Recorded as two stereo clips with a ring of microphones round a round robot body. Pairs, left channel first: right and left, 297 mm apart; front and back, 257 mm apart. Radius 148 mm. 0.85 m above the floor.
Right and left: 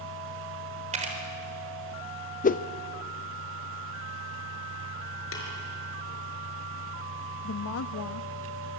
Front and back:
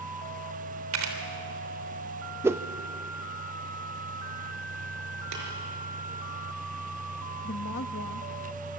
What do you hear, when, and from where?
0.9 s a camera shutter: 160° left, 3.5 m
2.4 s a whoosh: 110° right, 0.5 m
5.3 s tapping: 140° right, 5 m
7.4 s a woman speaking: 50° right, 0.8 m